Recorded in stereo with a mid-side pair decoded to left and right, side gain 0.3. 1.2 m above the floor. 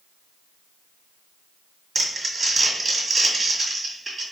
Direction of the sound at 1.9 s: 55° right.